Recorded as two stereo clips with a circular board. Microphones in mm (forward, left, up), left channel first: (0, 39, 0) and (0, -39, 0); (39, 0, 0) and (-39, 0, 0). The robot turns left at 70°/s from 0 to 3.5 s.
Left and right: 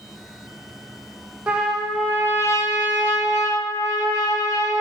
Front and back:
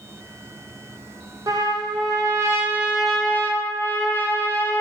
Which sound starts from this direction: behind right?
A trumpet, at 1.5 s.